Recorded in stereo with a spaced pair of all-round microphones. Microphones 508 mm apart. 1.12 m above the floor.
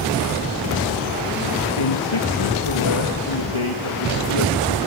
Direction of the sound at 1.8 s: 75° left (ahead or behind).